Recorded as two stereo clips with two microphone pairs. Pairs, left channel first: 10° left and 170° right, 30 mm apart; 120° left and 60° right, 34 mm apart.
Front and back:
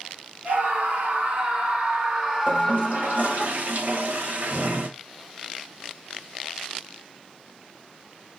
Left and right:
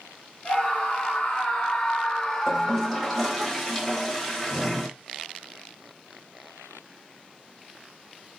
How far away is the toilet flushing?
About 1.1 m.